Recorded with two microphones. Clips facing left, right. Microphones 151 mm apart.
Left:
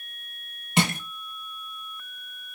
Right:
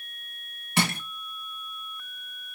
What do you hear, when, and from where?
0.8 s crushing: 20° left (ahead or behind), 1.2 m